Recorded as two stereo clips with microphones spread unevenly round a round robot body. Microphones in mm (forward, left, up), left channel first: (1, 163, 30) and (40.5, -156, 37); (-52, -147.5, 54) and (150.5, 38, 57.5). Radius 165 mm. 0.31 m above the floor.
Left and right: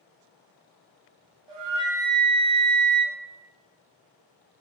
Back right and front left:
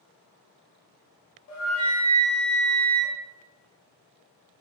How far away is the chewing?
I don't hear chewing.